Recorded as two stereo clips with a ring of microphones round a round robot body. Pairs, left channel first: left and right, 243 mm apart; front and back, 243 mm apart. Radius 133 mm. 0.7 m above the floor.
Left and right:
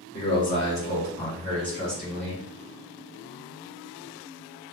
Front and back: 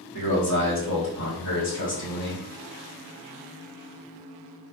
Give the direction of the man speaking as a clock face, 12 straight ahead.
12 o'clock.